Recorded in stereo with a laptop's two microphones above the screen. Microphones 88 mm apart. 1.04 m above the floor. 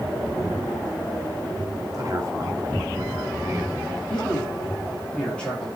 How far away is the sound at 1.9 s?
About 1.4 m.